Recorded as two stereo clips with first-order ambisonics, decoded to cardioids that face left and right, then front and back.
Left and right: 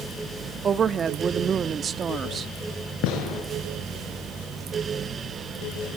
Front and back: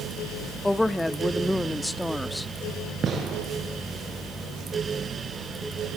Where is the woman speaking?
75° right, 0.6 m.